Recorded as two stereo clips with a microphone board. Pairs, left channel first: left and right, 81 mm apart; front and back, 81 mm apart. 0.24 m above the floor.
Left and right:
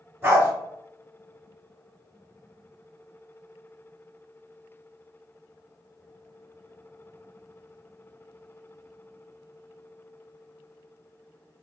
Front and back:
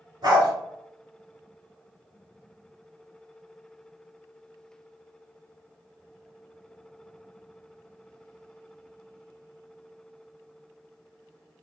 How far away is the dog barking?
About 1.5 m.